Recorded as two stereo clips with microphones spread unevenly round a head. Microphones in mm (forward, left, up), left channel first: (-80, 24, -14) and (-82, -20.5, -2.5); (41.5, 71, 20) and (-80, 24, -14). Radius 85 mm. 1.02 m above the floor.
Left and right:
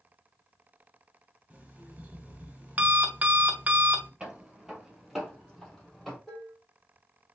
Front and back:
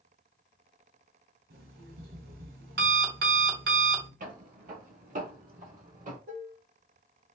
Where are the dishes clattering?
Straight behind, 1.2 m.